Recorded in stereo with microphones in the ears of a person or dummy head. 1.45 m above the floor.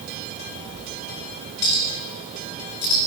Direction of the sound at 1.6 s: 60° left (ahead or behind).